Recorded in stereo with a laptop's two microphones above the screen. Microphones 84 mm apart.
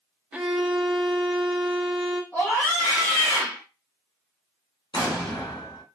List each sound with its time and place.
0.3 s a violin: 10° right (ahead or behind), 0.5 m
2.3 s a scream: 25° left (ahead or behind), 1.3 m
4.9 s an explosion: 70° left (ahead or behind), 1.6 m